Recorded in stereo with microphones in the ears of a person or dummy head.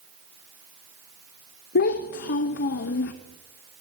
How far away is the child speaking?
About 0.6 m.